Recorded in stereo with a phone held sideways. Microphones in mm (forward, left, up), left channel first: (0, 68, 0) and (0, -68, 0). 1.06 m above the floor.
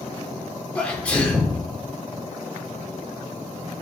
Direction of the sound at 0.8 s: 10° left (ahead or behind).